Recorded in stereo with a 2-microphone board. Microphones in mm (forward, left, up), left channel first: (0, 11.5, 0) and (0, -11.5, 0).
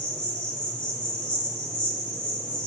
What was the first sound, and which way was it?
An insect, 45° left (ahead or behind).